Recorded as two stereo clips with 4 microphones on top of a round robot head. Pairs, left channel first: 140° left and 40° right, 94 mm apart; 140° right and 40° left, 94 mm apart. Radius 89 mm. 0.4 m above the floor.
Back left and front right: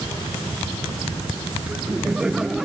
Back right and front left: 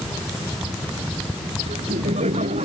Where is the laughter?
40° left; by 2.7 s 45° left.